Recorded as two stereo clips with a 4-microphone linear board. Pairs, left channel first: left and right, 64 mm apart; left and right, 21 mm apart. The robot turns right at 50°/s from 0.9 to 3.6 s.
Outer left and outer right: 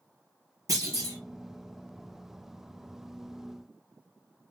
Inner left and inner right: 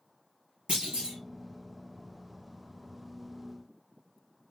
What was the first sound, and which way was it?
A clunk, 60° right (ahead or behind).